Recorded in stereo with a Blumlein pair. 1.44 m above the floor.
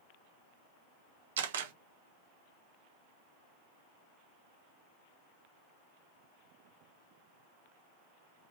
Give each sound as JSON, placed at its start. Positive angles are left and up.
{"t": 1.4, "sound": "a camera shutter", "azimuth_deg": -60, "distance_m": 1.0}